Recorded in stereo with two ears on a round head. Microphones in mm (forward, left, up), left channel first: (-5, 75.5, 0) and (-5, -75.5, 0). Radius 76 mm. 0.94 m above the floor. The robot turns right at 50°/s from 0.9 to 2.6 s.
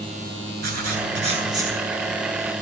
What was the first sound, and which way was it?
Writing, 55° right.